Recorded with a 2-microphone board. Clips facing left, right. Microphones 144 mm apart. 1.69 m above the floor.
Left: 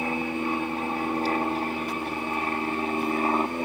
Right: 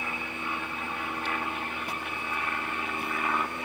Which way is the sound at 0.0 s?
40° left (ahead or behind).